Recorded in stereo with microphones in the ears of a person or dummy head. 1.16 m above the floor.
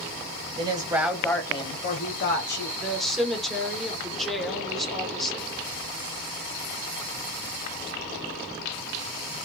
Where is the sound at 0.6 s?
30° right (ahead or behind), 0.7 m; by 2.7 s 65° left (ahead or behind), 1.1 m.